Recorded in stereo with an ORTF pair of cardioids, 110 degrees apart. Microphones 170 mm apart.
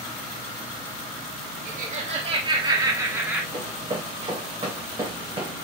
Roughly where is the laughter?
Ahead right.